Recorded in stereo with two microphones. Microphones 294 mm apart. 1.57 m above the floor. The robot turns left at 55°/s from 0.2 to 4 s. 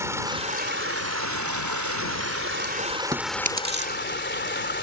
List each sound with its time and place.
0.0 s running water: 10° right; by 4.8 s 140° left
3.1 s chewing: 15° right (ahead or behind); by 3.9 s 40° right (ahead or behind)